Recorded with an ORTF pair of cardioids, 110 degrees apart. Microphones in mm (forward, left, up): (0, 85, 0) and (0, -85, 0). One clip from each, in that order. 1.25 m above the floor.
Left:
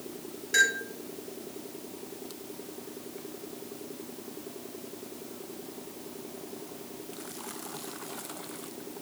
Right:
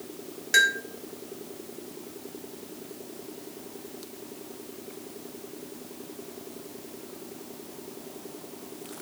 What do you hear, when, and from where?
0.5 s a bell: 35° right, 1.8 m